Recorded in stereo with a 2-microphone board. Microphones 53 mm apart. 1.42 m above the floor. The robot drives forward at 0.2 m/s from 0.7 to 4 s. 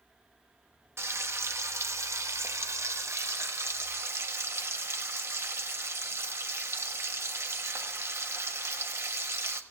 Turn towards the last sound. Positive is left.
turn(degrees=-50)  # may be behind; listen again after turning